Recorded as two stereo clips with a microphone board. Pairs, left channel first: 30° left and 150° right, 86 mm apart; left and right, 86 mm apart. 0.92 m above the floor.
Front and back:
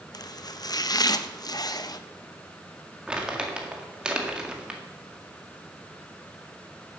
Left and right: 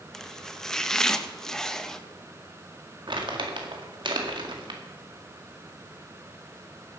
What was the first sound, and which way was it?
Chopping, 10° left.